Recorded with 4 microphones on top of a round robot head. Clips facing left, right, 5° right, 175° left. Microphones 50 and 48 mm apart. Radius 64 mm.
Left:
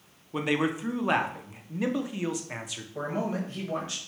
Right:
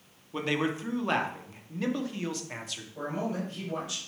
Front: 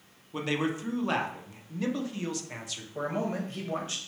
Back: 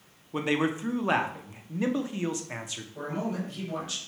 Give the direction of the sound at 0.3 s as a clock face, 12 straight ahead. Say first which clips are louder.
Left 2 dB, back 3 dB; 7 o'clock.